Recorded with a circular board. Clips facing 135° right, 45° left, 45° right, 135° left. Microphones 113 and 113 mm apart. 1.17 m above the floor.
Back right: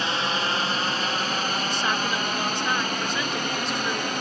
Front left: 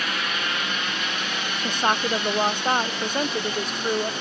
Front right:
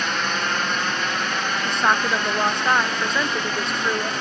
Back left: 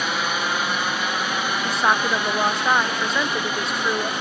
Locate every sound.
0.0 s a drone: 150° right; by 4.2 s 145° right
1.6 s a woman speaking: 50° left